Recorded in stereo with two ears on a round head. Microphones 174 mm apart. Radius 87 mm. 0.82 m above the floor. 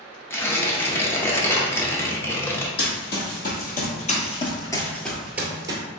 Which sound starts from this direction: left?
Running footsteps, at 2.8 s.